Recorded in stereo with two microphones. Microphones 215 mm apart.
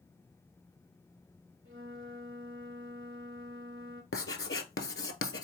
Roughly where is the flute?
Right.